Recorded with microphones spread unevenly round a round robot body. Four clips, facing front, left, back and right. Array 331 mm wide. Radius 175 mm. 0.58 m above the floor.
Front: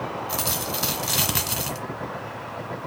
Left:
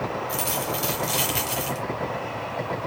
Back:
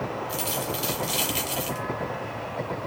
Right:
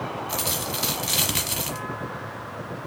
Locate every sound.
0.3 s a dropped coin: 5° right, 1.4 m